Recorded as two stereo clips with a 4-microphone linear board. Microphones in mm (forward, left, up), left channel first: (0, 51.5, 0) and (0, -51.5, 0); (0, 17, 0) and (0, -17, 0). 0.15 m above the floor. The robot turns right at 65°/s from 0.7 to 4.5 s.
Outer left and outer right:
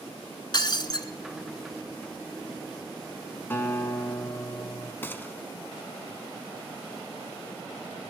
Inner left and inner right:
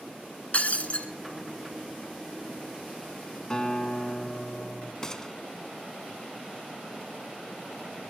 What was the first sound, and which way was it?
Breaking glass, 45° left (ahead or behind).